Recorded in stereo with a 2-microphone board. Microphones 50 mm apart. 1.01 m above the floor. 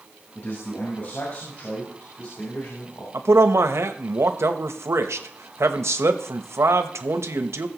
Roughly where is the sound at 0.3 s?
Left.